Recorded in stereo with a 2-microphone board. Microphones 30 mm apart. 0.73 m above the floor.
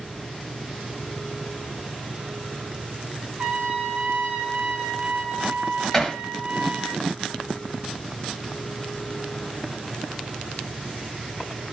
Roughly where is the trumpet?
Right.